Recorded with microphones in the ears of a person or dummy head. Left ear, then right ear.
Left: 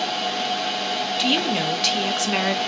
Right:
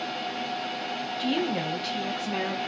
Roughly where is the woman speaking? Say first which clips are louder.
Left 7 dB; left.